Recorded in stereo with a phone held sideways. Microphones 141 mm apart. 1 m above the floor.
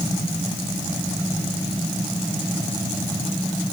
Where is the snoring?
I don't hear snoring.